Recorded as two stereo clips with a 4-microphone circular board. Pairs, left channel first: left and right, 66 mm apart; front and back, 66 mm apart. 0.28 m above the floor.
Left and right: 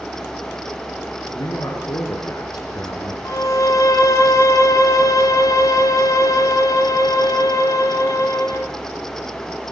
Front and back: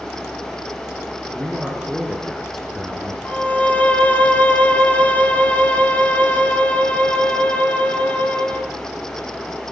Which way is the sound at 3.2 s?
65° left.